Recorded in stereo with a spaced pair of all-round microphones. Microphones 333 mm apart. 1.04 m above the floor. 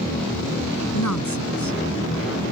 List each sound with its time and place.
0.9 s a woman speaking: 60° left (ahead or behind)